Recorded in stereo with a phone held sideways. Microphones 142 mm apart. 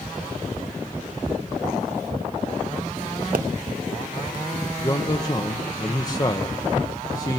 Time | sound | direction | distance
3.3 | a pop | 70° right (ahead or behind) | 0.6 m
4.8 | a man speaking | 25° left (ahead or behind) | 0.9 m